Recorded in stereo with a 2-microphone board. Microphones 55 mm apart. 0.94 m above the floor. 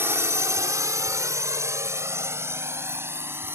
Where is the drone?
45° right (ahead or behind).